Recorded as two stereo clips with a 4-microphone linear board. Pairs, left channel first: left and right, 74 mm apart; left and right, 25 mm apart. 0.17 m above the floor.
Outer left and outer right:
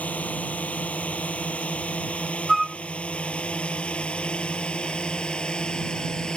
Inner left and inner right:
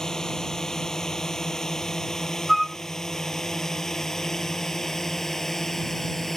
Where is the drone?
20° left (ahead or behind); by 6.4 s 10° left (ahead or behind).